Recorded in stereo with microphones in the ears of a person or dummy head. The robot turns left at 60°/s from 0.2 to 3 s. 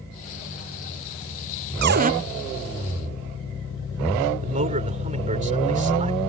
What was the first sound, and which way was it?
A cupboard door, 55° right (ahead or behind).